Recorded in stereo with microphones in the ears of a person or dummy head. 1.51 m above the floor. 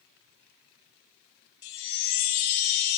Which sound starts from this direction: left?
A chime, at 1.6 s.